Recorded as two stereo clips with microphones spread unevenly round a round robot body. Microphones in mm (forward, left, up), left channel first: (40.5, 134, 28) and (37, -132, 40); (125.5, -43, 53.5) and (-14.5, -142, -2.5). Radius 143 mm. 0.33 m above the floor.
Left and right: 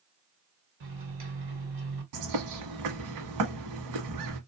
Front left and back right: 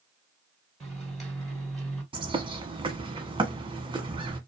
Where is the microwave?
70° right, 1.9 m.